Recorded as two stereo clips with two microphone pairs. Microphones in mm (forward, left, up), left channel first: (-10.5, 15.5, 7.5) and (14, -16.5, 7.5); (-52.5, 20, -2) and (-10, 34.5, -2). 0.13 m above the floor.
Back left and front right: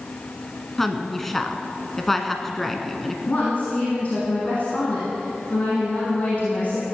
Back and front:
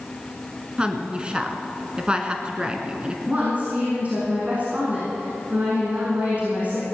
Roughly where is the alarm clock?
No alarm clock in this recording.